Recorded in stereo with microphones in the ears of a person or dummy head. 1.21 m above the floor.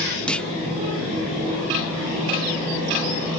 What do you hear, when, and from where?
0.3 s a clunk: 10° left (ahead or behind), 0.8 m